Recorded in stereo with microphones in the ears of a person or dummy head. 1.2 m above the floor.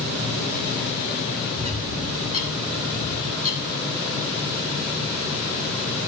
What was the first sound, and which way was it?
A bird, 35° right (ahead or behind).